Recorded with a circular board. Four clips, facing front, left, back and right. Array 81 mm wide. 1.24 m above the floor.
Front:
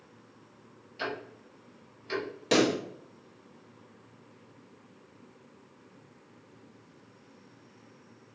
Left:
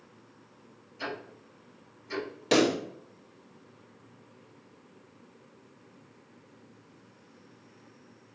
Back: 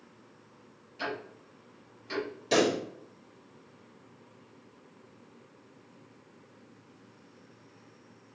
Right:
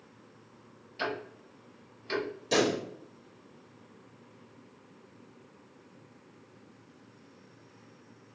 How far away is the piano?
I don't hear a piano.